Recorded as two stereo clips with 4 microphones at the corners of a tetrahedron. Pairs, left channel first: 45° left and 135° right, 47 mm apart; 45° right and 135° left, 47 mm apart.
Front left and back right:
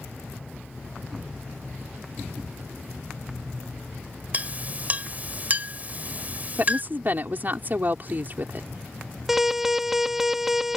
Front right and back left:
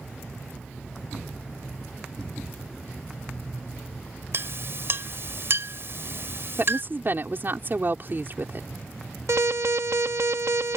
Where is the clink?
170° left.